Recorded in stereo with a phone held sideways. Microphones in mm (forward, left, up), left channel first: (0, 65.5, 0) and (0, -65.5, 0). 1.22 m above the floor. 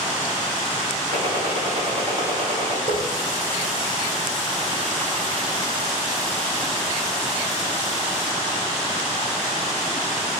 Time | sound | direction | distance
1.1 | a gunshot | 45° right (ahead or behind) | 3.5 m
2.9 | a running tap | 80° right | 3 m